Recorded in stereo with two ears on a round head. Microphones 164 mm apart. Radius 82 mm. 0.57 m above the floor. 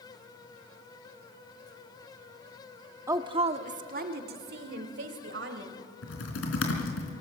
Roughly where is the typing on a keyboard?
Left.